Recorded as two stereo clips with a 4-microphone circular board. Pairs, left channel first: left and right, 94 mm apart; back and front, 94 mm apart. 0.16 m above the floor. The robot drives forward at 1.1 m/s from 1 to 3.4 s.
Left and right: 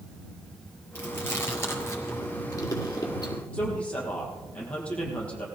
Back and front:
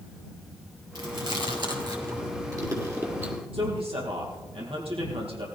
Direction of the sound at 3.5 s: 15° left.